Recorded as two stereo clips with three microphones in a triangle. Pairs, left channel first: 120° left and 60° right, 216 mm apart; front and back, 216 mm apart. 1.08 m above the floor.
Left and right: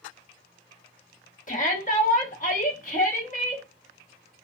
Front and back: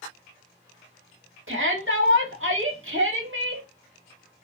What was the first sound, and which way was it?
A shout, 170° left.